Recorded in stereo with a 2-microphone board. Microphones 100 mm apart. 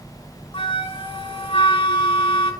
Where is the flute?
60° left (ahead or behind), 1.8 m.